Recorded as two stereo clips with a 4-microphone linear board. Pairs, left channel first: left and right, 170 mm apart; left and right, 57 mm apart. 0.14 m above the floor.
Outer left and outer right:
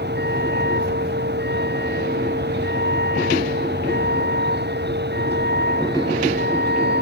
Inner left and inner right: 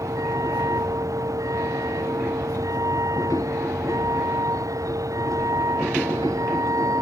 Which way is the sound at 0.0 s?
85° right.